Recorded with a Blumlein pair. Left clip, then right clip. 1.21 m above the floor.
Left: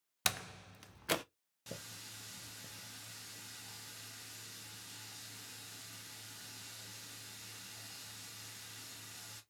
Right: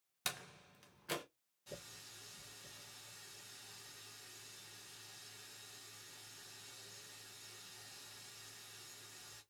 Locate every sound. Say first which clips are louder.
0.2 s a door slam: left 7 dB; 65° left, 0.5 m
1.7 s a running tap: left 4 dB; 55° left, 1.2 m